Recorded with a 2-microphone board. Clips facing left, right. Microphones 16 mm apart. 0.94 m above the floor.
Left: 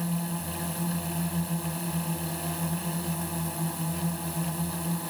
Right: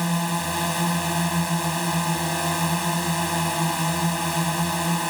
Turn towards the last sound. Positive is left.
turn(degrees=-60)  # may be behind; listen again after turning